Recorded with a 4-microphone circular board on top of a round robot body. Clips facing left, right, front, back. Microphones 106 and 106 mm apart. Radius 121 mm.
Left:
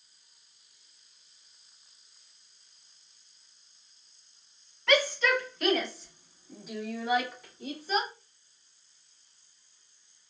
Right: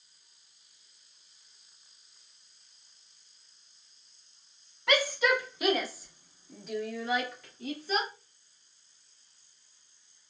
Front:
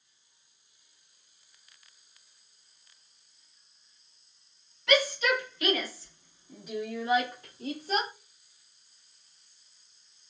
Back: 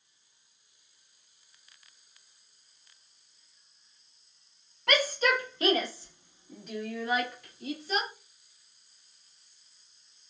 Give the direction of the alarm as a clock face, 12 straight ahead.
No alarm in this recording.